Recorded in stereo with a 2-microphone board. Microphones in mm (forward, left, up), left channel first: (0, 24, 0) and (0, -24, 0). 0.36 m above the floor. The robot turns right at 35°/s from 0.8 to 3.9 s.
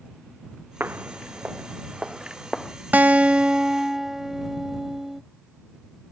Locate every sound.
0.8 s footsteps: 50° right (ahead or behind); by 2.8 s 5° left (ahead or behind)
2.9 s a guitar: 45° right; by 5.2 s 10° right